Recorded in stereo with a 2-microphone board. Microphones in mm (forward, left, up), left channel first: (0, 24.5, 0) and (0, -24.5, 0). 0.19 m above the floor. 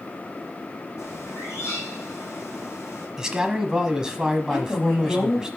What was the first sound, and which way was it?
A bird, 70° left (ahead or behind).